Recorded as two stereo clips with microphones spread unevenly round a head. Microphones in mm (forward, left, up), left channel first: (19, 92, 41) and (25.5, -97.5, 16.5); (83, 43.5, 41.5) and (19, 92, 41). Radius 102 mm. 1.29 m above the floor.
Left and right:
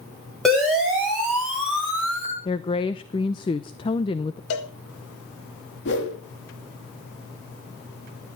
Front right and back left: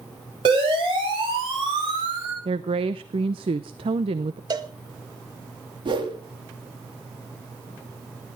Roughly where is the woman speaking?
Behind.